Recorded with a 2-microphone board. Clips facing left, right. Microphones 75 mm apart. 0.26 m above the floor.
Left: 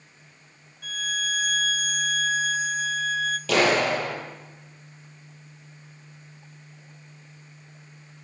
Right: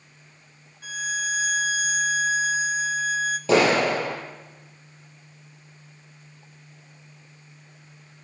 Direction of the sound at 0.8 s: 10° right (ahead or behind).